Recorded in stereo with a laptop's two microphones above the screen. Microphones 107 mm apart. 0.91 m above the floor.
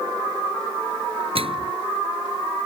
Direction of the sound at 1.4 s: 60° right (ahead or behind).